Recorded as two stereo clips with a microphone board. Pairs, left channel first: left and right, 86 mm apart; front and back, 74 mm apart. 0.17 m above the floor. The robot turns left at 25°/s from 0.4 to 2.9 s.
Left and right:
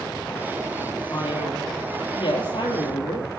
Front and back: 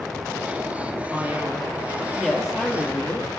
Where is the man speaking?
125° left, 3.5 m; by 3.3 s 80° left, 3.5 m.